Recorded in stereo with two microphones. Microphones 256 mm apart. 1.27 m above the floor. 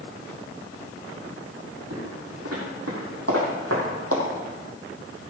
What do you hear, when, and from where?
1.9 s footsteps: 70° right (ahead or behind), 3.5 m; by 4.2 s 60° right (ahead or behind), 3 m